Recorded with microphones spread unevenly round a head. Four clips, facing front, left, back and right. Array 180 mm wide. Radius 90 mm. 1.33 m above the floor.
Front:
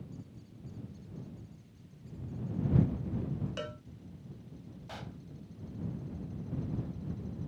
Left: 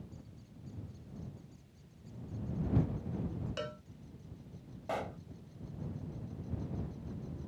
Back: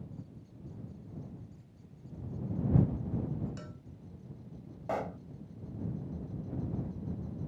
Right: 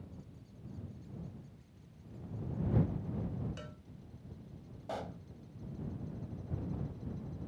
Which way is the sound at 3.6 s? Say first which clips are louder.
Left 9 dB, front 8 dB; 35° left.